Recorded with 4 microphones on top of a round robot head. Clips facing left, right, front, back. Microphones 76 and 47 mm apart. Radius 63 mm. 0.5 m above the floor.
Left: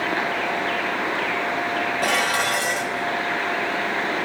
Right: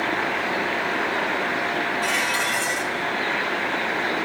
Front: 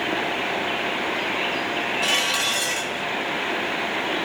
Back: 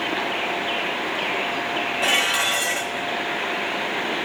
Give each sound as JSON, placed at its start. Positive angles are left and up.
{"t": 2.0, "sound": "dishes clattering", "azimuth_deg": 115, "distance_m": 2.0}